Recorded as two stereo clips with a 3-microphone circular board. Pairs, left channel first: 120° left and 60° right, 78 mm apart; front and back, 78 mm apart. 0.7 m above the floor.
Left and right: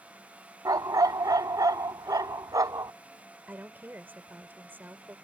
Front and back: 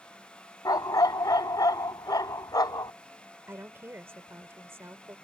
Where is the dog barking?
30° right.